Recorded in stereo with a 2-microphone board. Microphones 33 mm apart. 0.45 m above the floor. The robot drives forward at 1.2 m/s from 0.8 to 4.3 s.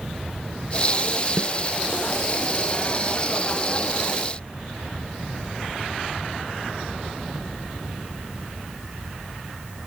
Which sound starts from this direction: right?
A snare drum, at 1.4 s.